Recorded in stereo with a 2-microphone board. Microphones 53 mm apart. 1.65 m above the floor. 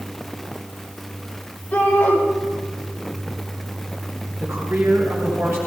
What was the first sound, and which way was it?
A shout, 30° left (ahead or behind).